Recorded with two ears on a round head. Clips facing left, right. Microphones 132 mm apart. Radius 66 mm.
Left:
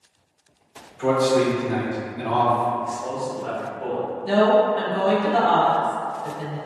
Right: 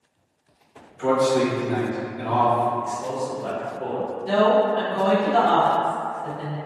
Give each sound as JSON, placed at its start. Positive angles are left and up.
{"t": 1.0, "sound": "a man speaking", "side_deg": 15, "distance_m": 1.1}
{"t": 2.8, "sound": "a man speaking", "side_deg": -30, "distance_m": 0.8}
{"t": 4.2, "sound": "a woman speaking", "side_deg": 10, "distance_m": 0.5}